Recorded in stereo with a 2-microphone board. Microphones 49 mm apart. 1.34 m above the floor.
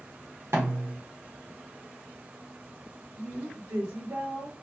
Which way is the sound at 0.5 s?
65° right (ahead or behind).